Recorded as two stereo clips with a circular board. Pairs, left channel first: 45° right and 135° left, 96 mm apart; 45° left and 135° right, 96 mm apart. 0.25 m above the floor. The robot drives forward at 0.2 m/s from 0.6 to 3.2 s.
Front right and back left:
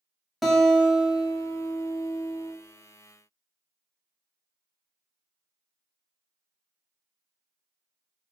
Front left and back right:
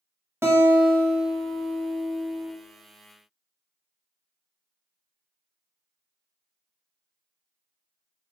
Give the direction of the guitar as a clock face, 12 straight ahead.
5 o'clock.